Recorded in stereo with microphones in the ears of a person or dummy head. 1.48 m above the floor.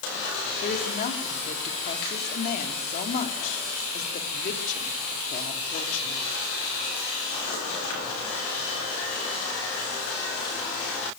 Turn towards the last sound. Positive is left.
turn(degrees=40)  # may be behind; listen again after turning